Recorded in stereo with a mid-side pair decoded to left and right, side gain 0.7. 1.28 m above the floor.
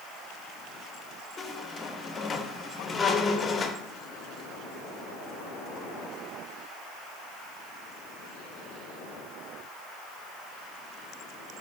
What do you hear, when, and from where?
1.4 s a squeak: 25° left, 0.5 m